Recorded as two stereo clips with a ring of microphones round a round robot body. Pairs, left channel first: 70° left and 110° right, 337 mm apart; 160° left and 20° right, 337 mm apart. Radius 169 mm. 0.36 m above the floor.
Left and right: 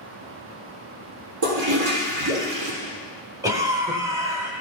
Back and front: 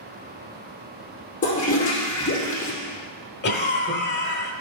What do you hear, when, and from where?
1.4 s a toilet flushing: 135° right, 3.5 m
3.4 s a cough: 175° left, 1.4 m